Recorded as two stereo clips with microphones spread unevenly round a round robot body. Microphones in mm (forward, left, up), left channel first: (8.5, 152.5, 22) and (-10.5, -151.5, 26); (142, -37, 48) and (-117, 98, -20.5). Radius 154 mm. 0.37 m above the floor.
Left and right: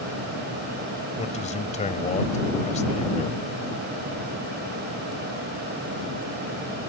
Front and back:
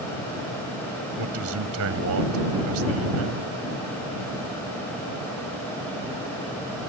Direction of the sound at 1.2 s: 150° left.